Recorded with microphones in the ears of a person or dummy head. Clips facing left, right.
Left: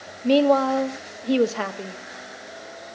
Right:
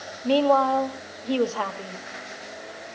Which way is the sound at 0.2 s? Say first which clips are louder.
Left 2 dB; 30° left (ahead or behind).